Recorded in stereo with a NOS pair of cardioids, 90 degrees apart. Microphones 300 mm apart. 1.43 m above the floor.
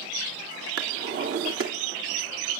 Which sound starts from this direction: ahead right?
A drawer, at 0.8 s.